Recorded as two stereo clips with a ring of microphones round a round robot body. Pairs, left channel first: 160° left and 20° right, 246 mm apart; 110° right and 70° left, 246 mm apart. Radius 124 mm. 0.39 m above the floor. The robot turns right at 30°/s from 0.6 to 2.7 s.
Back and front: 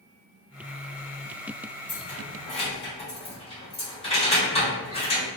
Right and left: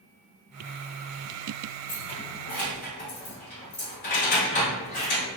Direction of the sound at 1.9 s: 175° right.